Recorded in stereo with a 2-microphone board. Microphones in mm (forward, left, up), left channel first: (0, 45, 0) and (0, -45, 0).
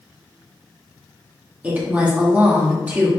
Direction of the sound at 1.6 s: 15° right (ahead or behind).